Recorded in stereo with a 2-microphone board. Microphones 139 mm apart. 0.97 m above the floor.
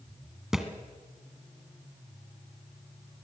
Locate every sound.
0.5 s a thud: 5° right (ahead or behind), 2 m